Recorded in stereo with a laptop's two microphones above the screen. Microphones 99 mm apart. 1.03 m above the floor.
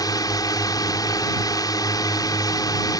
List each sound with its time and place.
0.0 s a drone: 40° left (ahead or behind)